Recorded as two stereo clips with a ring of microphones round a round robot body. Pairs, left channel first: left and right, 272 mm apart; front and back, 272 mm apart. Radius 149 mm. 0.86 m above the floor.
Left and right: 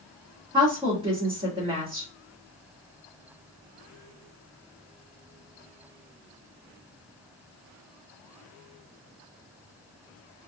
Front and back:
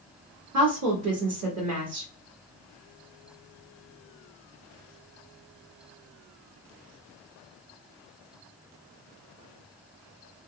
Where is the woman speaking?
160° right, 1.9 m.